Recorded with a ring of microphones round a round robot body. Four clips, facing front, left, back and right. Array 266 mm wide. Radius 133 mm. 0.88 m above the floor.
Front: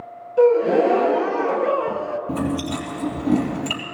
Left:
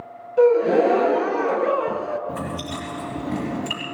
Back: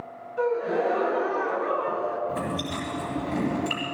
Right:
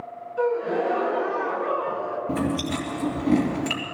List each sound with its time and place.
0.4 s a gasp: 40° left, 0.5 m
2.3 s chewing: 35° right, 3.5 m